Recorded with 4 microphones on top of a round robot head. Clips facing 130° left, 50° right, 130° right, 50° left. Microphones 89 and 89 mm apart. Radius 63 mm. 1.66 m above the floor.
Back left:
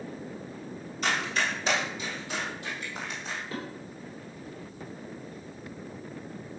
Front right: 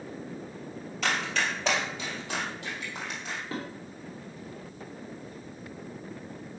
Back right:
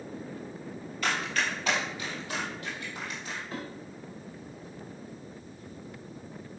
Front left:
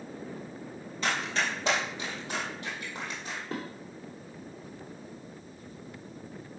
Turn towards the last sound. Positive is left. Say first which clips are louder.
# front right 2 dB, front left 3 dB
turn(degrees=15)